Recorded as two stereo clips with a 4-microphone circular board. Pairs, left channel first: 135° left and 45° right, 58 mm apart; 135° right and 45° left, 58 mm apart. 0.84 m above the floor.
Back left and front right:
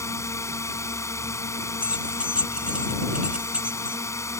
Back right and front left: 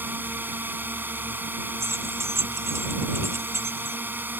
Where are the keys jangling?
20° left.